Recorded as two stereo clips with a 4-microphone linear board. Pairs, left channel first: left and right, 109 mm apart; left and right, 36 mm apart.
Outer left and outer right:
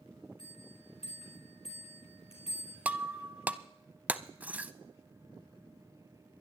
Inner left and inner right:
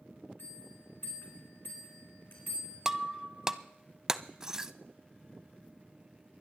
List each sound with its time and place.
0.4 s a bell: 65° left (ahead or behind), 4.5 m
2.9 s breaking glass: 15° right (ahead or behind), 0.5 m